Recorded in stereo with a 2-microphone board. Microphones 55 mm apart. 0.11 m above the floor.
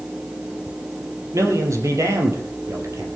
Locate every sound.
1.3 s a man speaking: 65° right (ahead or behind), 3.5 m